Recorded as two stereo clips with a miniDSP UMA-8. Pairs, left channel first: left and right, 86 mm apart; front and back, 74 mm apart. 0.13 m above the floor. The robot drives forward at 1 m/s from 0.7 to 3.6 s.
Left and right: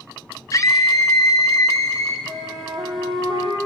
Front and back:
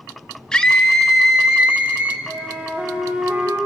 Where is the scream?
75° left, 2 m; by 2.2 s 130° left, 2 m.